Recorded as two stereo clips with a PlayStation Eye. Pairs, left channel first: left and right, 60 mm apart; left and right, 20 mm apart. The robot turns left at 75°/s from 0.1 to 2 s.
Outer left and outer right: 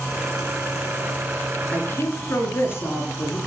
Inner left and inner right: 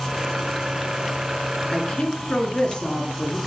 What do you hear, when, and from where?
1.7 s a woman speaking: 25° left (ahead or behind), 2 m; by 3.4 s 45° left (ahead or behind), 2 m